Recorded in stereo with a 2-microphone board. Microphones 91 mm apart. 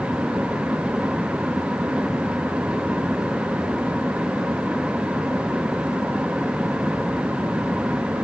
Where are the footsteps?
I don't hear footsteps.